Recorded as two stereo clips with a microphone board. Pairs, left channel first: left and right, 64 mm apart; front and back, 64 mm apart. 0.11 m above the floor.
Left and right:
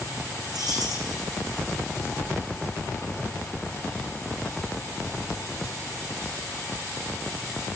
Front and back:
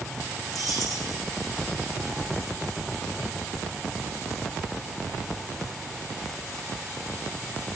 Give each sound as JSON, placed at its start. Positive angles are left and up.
{"t": 0.5, "sound": "keys jangling", "azimuth_deg": -90, "distance_m": 5.0}